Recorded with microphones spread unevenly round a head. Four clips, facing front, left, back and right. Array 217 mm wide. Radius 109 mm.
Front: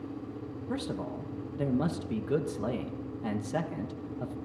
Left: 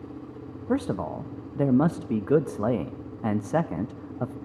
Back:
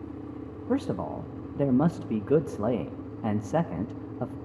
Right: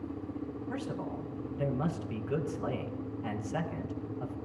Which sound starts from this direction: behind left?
A man speaking, at 0.7 s.